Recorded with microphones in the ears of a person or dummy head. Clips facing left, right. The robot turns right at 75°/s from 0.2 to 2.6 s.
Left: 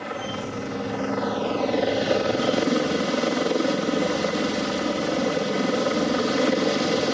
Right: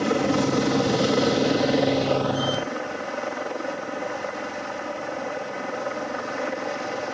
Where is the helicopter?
125° right; by 7.1 s 55° left.